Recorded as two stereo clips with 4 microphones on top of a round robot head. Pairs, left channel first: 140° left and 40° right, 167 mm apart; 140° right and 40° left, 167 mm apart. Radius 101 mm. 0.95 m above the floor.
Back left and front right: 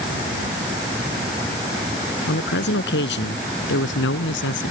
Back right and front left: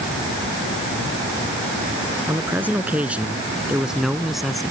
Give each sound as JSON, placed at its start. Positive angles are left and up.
{"t": 2.3, "sound": "a man speaking", "azimuth_deg": 120}